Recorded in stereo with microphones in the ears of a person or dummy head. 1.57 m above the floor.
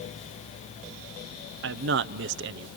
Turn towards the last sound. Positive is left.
turn(degrees=-65)  # may be behind; listen again after turning